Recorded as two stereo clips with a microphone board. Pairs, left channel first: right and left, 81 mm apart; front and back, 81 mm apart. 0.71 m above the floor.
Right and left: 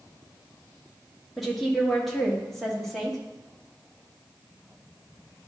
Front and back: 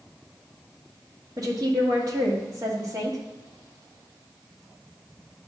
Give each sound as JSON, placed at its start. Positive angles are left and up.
{"t": 1.4, "sound": "a woman speaking", "azimuth_deg": 180, "distance_m": 1.5}